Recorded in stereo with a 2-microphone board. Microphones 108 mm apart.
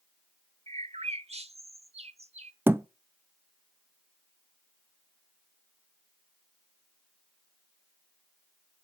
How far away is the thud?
About 0.5 m.